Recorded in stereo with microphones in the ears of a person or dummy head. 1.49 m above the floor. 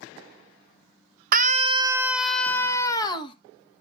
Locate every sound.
1.3 s a scream: 50° right (ahead or behind), 0.9 m; by 3.4 s 25° left (ahead or behind), 1.7 m